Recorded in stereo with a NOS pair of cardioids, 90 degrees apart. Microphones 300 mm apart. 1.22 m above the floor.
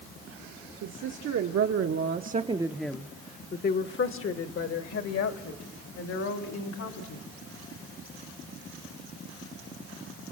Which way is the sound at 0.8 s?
70° right.